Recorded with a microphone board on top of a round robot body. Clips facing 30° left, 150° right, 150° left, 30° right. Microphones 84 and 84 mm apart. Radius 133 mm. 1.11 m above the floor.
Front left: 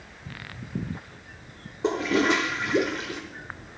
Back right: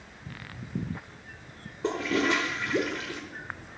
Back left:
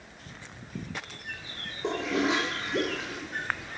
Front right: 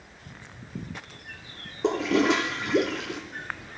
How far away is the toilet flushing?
About 0.8 m.